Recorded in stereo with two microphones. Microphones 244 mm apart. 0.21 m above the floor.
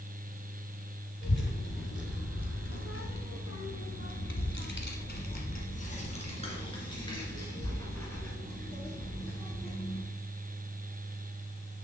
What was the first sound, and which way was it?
A child speaking, 50° left (ahead or behind).